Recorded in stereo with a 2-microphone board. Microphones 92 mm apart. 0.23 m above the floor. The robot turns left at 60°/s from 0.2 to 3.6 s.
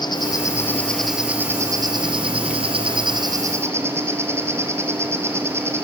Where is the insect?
55° left, 3 m; by 5.8 s 150° right, 3 m.